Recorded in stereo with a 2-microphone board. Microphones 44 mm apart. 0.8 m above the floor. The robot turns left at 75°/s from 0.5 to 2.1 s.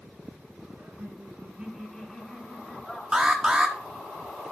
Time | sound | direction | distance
0.8 | laughter | 85° right | 5 m
3.1 | an alarm | 20° right (ahead or behind) | 1.3 m